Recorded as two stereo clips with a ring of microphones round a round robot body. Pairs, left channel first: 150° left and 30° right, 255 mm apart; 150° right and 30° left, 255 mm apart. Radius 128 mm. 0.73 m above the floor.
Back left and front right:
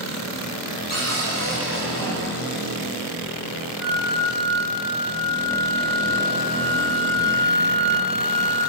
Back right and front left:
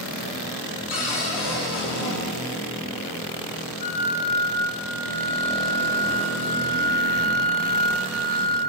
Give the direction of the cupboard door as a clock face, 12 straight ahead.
5 o'clock.